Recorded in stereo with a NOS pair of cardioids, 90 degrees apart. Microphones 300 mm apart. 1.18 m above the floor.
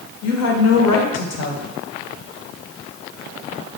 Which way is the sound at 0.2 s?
60° left.